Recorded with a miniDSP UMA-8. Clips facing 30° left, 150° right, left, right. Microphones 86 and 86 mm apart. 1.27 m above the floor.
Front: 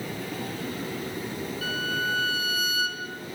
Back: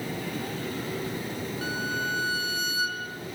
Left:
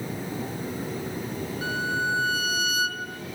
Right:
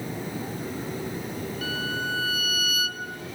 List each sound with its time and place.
1.6 s a violin: 150° left, 2.5 m